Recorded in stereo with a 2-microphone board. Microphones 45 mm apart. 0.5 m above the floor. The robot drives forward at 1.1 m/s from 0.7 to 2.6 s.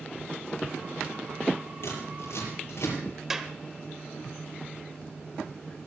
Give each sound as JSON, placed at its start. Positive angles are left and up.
{"t": 1.8, "sound": "scissors", "side_deg": 60, "distance_m": 7.0}
{"t": 3.3, "sound": "a clap", "side_deg": -10, "distance_m": 1.2}